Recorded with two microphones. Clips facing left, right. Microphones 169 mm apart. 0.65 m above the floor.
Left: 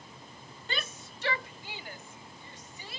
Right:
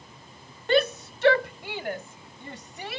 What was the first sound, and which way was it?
A shout, 60° right (ahead or behind).